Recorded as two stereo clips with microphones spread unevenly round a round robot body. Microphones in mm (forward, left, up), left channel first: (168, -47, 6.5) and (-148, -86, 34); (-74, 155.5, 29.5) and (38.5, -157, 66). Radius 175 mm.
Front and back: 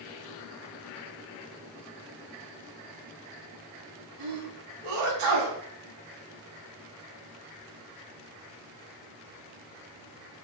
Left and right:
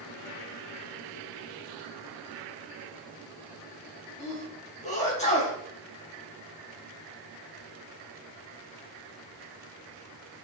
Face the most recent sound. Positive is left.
turn(degrees=180)